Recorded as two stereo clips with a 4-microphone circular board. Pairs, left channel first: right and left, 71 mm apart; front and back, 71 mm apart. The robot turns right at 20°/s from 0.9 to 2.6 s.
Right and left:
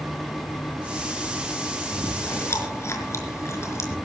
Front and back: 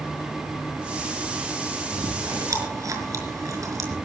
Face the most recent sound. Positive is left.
turn(degrees=-140)